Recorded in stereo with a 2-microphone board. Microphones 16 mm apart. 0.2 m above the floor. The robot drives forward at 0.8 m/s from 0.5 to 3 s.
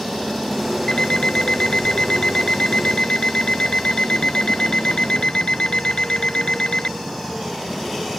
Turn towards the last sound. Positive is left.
turn(degrees=65)  # may be behind; listen again after turning